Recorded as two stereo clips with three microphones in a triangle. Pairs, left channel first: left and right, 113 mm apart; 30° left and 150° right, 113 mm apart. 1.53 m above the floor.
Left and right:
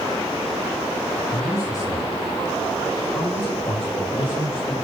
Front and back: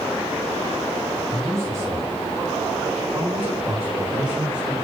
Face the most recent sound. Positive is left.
turn(degrees=130)